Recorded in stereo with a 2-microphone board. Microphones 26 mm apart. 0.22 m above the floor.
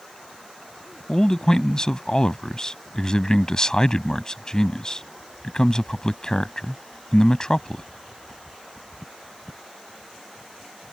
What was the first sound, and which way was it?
A man speaking, 30° left (ahead or behind).